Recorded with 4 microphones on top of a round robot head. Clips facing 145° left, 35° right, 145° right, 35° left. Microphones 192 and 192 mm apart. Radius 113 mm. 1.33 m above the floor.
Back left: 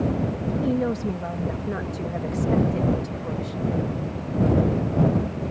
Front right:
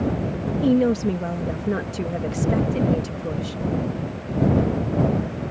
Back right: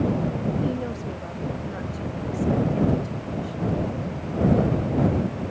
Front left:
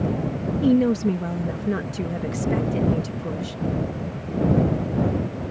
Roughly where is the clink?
I don't hear a clink.